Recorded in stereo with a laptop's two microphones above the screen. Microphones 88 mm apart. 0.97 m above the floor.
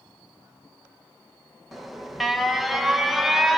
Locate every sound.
1.7 s an alarm: centre (ahead or behind), 1.0 m